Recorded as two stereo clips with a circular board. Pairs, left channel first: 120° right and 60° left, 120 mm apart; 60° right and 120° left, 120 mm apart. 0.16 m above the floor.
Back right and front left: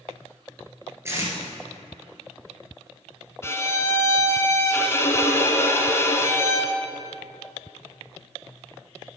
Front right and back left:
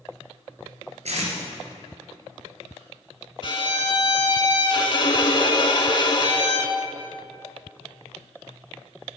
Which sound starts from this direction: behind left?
Tape being pulled, at 1.1 s.